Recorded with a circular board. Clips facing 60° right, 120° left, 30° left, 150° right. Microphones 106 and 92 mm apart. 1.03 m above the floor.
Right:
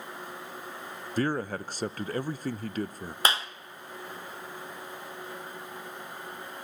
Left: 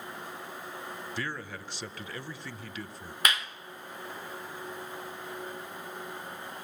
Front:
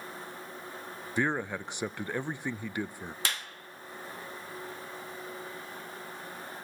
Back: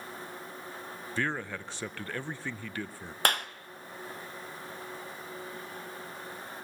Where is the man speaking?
35° right, 0.5 m.